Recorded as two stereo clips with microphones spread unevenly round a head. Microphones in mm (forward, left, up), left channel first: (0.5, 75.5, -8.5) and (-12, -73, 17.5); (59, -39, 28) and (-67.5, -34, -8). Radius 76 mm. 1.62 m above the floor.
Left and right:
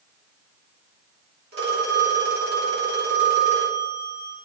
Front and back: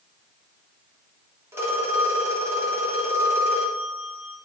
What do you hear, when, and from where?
1.5 s a phone ringing: 110° right, 3 m